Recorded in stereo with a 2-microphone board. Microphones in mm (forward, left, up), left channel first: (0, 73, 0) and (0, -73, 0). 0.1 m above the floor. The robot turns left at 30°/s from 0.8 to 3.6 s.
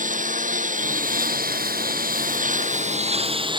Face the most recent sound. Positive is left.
turn(degrees=-145)